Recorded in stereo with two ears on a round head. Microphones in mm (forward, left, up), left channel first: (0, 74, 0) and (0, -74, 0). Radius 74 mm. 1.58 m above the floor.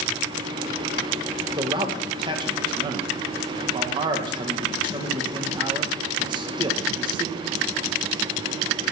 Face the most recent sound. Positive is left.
turn(degrees=-30)  # may be behind; listen again after turning